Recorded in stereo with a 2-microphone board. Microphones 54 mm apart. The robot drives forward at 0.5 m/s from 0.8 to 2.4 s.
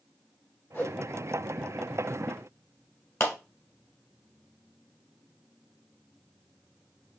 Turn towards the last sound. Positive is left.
turn(degrees=50)  # may be behind; listen again after turning